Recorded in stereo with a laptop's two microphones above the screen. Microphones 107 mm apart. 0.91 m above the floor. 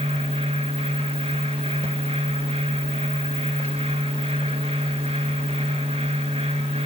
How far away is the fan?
About 3 m.